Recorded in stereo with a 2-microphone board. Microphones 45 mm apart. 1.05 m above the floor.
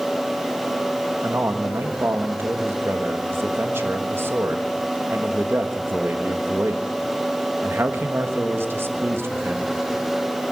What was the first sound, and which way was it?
A man speaking, 65° right (ahead or behind).